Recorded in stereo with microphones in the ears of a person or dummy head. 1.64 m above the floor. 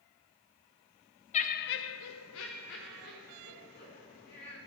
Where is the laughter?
35° left (ahead or behind), 0.7 m.